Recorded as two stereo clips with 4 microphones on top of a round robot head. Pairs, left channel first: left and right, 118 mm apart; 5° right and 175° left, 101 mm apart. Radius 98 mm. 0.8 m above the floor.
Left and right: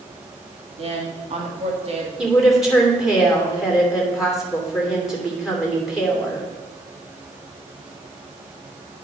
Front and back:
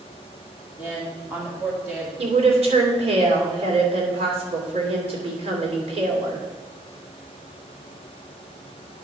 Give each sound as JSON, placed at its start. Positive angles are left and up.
{"t": 0.8, "sound": "a woman speaking", "azimuth_deg": -110, "distance_m": 1.8}
{"t": 2.2, "sound": "a woman speaking", "azimuth_deg": -175, "distance_m": 3.0}